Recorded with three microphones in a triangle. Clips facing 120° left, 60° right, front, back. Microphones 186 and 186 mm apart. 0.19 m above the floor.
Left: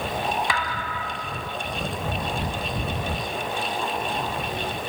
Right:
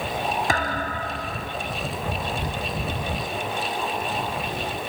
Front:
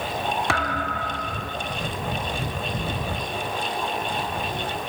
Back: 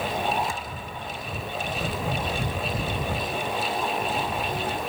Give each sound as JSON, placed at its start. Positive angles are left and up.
{"t": 0.5, "sound": "a thud", "azimuth_deg": -15}